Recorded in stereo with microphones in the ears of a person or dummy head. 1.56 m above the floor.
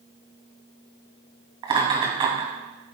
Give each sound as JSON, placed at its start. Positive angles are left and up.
{"t": 1.6, "sound": "laughter", "side_deg": -25, "distance_m": 2.5}